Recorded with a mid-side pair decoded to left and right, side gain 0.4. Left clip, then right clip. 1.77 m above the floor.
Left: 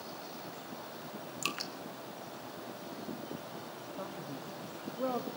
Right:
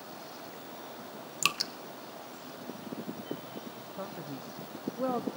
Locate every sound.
1.4 s dripping: 55° right, 1.0 m
4.0 s a man speaking: 25° right, 1.3 m